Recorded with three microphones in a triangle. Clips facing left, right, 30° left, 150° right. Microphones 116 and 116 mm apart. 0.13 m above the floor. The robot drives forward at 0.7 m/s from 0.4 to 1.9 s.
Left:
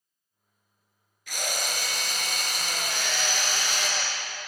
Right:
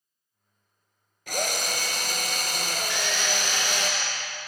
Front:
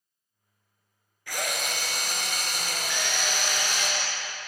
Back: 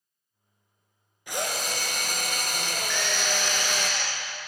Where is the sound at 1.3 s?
85° right, 0.8 m; by 3.9 s 120° right, 0.9 m.